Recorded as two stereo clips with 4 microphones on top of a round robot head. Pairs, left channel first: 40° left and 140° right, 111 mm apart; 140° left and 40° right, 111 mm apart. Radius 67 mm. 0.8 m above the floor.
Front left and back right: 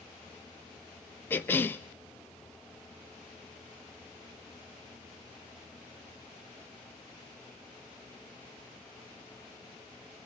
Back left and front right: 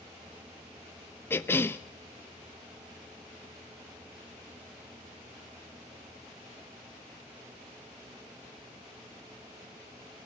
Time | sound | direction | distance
1.3 | a cough | 90° left | 0.5 m